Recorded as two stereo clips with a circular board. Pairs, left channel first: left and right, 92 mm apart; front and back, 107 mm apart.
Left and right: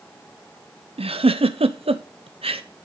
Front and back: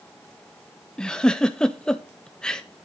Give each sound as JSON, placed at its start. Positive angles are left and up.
{"t": 1.0, "sound": "a giggle", "azimuth_deg": -85, "distance_m": 0.8}